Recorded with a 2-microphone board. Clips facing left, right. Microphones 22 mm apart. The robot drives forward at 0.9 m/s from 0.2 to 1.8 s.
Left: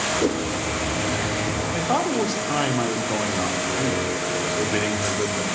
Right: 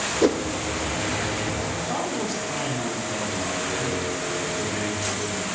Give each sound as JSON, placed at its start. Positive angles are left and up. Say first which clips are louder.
{"t": 0.2, "sound": "a whoosh", "louder": "right 6 dB", "side_deg": -35, "distance_m": 0.5}
{"t": 1.7, "sound": "a man speaking", "louder": "left 5 dB", "side_deg": 80, "distance_m": 1.1}